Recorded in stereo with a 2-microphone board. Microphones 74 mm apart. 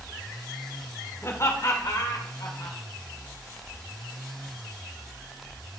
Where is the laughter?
40° left (ahead or behind), 1.3 m; by 2.8 s 60° left (ahead or behind), 2 m.